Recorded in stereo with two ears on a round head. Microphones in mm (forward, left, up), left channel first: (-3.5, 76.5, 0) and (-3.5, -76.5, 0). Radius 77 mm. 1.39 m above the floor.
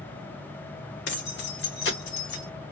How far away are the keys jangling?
About 2 m.